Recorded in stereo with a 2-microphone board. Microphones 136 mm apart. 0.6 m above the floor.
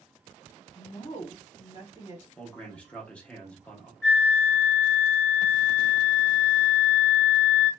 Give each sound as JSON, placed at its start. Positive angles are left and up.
{"t": 0.8, "sound": "a woman speaking", "side_deg": 35, "distance_m": 1.4}
{"t": 2.4, "sound": "a man speaking", "side_deg": 10, "distance_m": 0.7}
{"t": 4.0, "sound": "a flute", "side_deg": -10, "distance_m": 1.3}